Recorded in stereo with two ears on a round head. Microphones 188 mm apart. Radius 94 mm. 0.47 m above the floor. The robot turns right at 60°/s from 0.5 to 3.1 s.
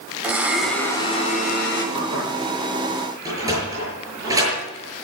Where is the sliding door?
15° right (ahead or behind), 7 m.